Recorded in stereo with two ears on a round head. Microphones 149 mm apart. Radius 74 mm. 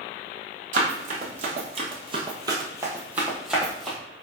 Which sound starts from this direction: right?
Running footsteps, at 0.7 s.